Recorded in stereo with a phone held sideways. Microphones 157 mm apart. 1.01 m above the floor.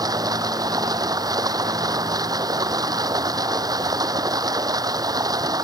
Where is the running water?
25° right (ahead or behind).